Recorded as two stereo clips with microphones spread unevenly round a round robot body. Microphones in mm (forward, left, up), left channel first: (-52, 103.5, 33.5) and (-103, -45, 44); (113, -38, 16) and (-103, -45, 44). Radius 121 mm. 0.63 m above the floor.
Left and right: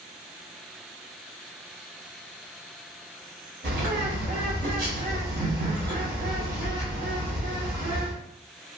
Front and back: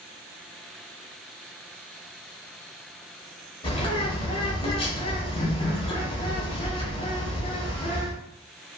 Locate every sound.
3.6 s a bird: 65° right, 1.0 m